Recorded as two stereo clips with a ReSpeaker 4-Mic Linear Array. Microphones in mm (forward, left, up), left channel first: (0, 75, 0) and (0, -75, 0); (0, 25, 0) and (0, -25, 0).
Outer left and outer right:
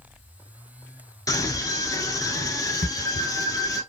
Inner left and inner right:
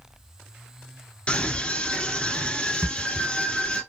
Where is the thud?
65° left (ahead or behind), 1.4 m.